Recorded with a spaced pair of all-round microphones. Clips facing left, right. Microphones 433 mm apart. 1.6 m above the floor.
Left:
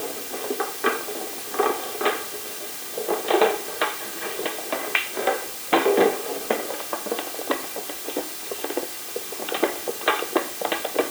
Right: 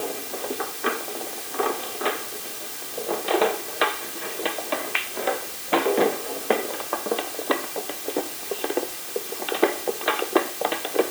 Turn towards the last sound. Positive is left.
No sound to turn to.